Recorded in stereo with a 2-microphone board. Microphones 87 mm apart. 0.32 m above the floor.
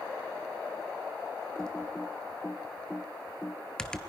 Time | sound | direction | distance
1.6 | typing on a keyboard | 10° left (ahead or behind) | 1.0 m